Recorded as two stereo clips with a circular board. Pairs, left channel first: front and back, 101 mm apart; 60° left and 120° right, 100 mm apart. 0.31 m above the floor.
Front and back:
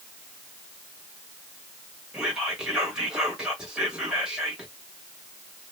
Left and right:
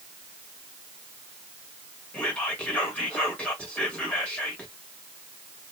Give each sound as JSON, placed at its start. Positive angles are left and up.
{"t": 2.1, "sound": "whispering", "azimuth_deg": 110, "distance_m": 0.9}